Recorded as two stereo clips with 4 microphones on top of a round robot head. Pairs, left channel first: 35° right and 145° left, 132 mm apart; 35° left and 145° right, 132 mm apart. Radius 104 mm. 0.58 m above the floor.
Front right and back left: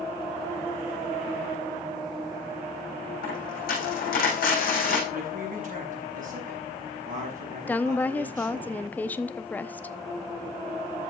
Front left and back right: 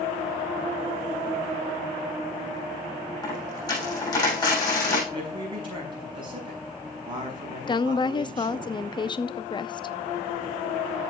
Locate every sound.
3.2 s a dropped coin: 25° right, 6.5 m
5.1 s a man speaking: 165° left, 6 m
7.7 s a woman speaking: 30° left, 0.8 m